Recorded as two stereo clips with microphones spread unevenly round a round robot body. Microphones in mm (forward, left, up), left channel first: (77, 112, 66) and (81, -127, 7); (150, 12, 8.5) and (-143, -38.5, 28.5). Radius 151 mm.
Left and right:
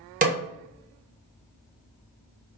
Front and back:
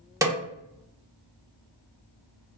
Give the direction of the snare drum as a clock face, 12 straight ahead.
3 o'clock.